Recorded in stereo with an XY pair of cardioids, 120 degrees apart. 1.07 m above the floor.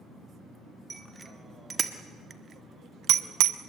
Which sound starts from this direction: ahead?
A bicycle bell, at 0.9 s.